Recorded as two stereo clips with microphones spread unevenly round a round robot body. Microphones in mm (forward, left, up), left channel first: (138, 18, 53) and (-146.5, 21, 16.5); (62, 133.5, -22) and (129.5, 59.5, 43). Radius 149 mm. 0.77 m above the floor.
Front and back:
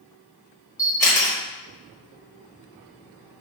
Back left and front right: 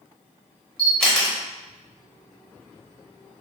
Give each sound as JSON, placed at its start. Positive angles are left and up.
{"t": 0.8, "sound": "a camera shutter", "azimuth_deg": 80, "distance_m": 1.2}